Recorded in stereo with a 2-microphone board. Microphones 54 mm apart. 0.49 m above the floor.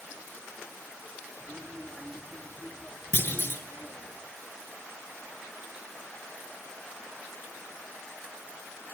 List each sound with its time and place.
1.4 s a child speaking: 35° right (ahead or behind), 5.5 m; by 4.1 s 30° right (ahead or behind), 6.5 m
3.1 s a clunk: 35° left (ahead or behind), 5 m